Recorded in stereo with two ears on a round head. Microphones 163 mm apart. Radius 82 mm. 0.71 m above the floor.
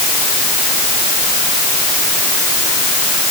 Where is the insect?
I don't hear an insect.